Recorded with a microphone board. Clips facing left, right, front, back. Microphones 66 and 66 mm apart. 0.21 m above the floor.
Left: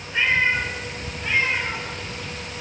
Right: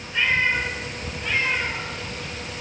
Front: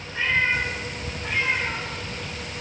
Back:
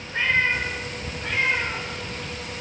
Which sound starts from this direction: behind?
A cat meowing, at 0.1 s.